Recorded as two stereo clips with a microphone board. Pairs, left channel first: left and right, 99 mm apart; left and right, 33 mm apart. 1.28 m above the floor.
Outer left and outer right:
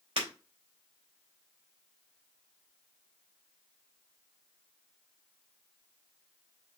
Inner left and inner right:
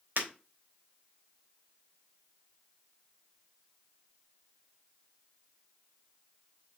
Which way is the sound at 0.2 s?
80° right.